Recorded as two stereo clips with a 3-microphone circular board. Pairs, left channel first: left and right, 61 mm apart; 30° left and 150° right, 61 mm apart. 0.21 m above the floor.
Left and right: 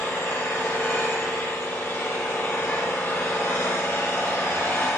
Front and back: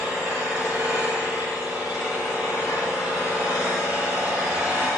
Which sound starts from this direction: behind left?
An engine running, at 0.0 s.